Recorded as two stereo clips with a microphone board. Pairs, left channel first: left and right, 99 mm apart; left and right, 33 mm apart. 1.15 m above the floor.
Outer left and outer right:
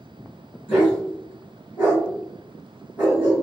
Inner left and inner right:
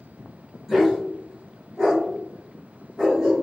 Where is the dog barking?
15° right (ahead or behind), 1.9 m.